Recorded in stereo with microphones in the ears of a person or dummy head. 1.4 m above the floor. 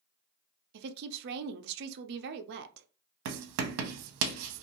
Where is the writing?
65° right (ahead or behind), 0.7 m.